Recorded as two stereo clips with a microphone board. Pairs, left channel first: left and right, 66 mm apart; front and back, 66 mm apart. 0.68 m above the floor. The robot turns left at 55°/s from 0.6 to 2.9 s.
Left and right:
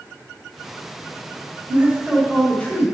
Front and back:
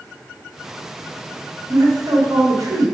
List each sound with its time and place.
1.7 s a man speaking: 150° right, 3 m; by 2.9 s 145° left, 3 m